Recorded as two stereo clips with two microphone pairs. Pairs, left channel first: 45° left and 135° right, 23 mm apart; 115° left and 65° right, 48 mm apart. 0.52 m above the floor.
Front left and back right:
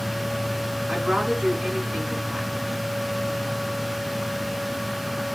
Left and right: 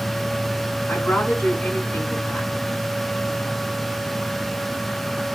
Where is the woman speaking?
170° left, 4.5 m.